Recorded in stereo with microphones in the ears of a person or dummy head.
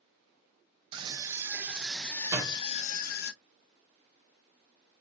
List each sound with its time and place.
0.9 s a scream: 25° right (ahead or behind), 1.3 m; by 3.3 s 65° left (ahead or behind), 0.9 m
2.3 s a door slam: 15° right (ahead or behind), 1.2 m